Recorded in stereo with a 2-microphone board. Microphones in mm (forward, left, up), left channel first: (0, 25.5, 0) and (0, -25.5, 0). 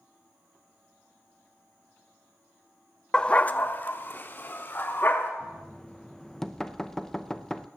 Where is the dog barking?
15° left (ahead or behind), 0.6 m; by 5.3 s 40° left (ahead or behind), 2 m.